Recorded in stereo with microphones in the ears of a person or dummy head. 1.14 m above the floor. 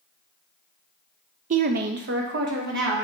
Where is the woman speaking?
45° right (ahead or behind), 0.6 m; by 3.0 s 65° right (ahead or behind), 2 m.